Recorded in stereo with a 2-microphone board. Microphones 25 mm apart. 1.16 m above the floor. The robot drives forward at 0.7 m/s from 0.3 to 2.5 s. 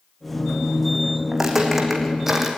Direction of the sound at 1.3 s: 15° right (ahead or behind).